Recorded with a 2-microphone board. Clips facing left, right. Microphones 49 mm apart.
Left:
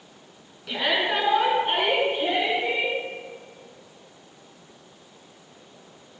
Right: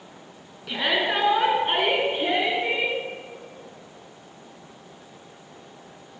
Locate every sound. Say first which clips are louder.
0.7 s a shout: even; 10° right (ahead or behind), 2.5 m; by 3.0 s 30° right (ahead or behind), 3.5 m